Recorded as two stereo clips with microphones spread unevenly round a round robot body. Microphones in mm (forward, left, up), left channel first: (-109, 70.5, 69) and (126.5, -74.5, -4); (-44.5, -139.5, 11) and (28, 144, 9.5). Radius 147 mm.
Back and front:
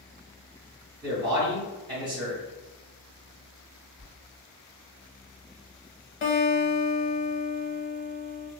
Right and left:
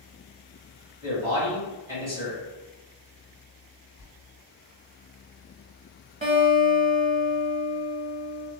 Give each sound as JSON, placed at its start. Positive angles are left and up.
{"t": 1.0, "sound": "a man speaking", "azimuth_deg": 10, "distance_m": 1.7}
{"t": 4.0, "sound": "a sliding door", "azimuth_deg": 45, "distance_m": 1.8}
{"t": 6.2, "sound": "a guitar", "azimuth_deg": 140, "distance_m": 0.9}